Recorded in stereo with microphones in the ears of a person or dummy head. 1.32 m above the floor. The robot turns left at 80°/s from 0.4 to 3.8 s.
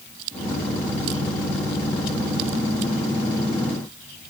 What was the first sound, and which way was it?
Only background noise.